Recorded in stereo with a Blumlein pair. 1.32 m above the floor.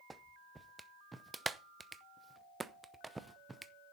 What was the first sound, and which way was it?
A clap, 10° right.